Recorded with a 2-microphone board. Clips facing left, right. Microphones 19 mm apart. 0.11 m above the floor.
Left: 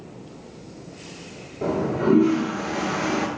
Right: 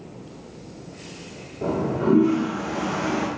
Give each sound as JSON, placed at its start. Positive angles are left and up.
{"t": 1.6, "sound": "a toilet flushing", "side_deg": 50, "distance_m": 1.0}